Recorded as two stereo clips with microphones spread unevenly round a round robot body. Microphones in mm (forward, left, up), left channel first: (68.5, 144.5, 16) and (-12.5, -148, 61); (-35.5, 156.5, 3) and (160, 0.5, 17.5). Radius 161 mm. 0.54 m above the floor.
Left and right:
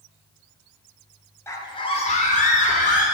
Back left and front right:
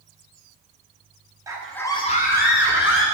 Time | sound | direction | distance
1.5 | a scream | 30° left | 1.2 m